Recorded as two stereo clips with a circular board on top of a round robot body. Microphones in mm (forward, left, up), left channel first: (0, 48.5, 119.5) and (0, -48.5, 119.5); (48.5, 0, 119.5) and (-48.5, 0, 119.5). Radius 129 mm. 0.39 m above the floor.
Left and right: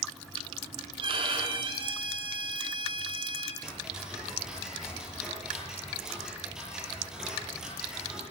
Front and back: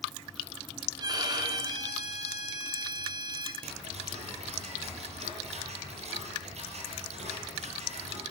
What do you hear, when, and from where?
1.0 s a violin: 130° right, 5.5 m
3.6 s ticking: 175° right, 9 m